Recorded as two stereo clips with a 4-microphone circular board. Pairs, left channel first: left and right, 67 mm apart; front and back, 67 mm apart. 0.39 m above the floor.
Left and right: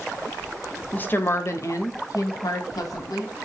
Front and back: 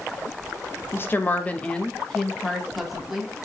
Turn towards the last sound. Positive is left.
turn(degrees=95)